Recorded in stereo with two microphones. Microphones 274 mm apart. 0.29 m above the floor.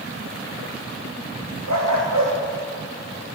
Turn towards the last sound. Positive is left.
turn(degrees=-80)